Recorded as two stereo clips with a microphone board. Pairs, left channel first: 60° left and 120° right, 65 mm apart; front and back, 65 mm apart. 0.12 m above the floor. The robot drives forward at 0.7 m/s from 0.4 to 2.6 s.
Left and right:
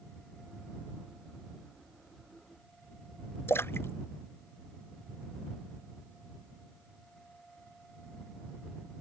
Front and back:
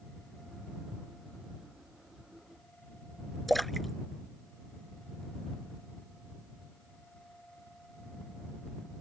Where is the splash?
85° left.